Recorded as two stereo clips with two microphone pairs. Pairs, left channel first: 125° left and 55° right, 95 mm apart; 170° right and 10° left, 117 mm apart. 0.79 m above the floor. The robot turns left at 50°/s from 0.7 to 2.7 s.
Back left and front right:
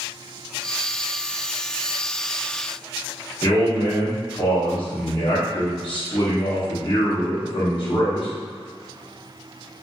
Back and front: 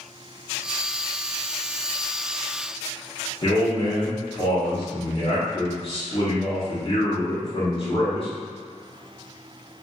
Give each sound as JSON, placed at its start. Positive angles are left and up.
{"t": 3.4, "sound": "a man speaking", "azimuth_deg": 160, "distance_m": 1.1}